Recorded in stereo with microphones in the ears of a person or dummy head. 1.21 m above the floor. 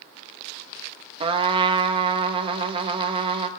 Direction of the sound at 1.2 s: 30° right (ahead or behind).